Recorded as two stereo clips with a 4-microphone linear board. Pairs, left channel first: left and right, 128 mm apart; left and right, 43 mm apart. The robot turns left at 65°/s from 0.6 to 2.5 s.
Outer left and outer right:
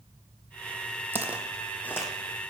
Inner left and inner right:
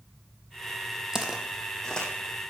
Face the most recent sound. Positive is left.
turn(degrees=45)  # may be behind; listen again after turning